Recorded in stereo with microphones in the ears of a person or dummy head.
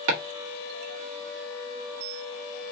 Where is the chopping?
70° right (ahead or behind), 1.4 m.